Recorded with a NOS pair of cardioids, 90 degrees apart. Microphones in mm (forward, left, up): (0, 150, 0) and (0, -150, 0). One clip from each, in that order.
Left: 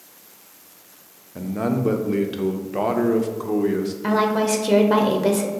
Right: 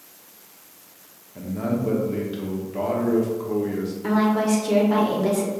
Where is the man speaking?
35° left, 0.7 m.